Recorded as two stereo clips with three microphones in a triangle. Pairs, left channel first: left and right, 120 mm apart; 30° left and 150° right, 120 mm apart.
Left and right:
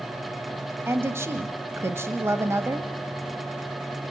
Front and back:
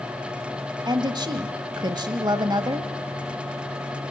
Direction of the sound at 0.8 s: 145° right.